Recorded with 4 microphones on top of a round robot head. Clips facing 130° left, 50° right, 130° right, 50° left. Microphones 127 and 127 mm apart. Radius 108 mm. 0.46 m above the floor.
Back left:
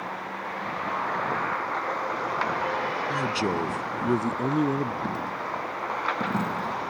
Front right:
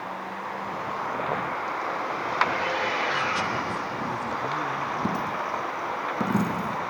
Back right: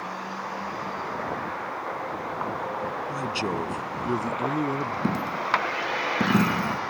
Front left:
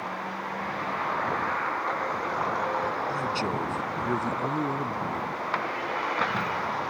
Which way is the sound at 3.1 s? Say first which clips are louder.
Back left 1 dB, even; 155° left.